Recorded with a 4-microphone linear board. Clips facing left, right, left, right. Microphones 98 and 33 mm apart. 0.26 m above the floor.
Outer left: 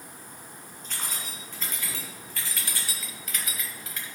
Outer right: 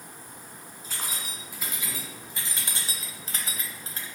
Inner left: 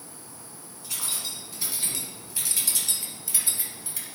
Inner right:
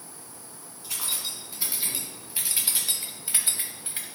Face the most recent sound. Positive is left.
turn(degrees=-35)  # may be behind; listen again after turning